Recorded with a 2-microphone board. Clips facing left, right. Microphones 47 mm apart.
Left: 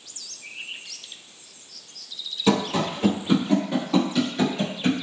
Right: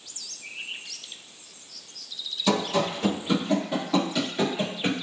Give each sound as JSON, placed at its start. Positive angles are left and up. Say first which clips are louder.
{"t": 2.5, "sound": "running footsteps", "louder": "left 2 dB", "side_deg": 25, "distance_m": 2.0}